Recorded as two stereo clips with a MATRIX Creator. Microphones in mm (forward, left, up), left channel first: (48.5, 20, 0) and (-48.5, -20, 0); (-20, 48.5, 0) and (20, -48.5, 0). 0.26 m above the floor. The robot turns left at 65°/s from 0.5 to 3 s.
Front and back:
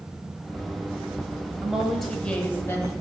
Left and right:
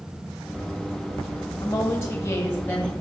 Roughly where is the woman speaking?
Behind left.